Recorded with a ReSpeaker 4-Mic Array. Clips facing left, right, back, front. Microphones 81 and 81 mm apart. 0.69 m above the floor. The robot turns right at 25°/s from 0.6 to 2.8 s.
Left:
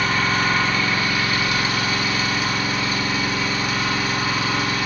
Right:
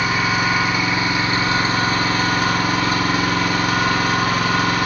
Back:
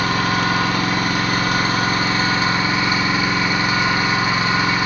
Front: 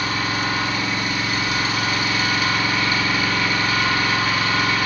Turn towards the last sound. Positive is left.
turn(degrees=-115)